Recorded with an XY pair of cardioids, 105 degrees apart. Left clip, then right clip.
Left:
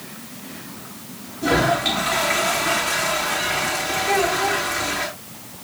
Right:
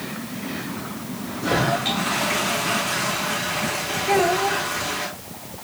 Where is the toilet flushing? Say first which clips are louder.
Left 3 dB; 20° left, 9 m.